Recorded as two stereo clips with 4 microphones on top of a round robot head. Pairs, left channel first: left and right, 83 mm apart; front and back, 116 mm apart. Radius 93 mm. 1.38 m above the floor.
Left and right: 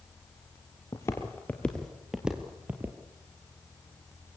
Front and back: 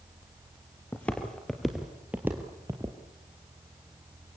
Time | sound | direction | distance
0.9 | footsteps | 65° left | 1.5 m